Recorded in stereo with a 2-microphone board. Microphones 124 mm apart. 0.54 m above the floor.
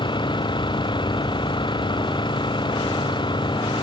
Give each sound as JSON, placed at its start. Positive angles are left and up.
{"t": 0.0, "sound": "an engine running", "side_deg": 40}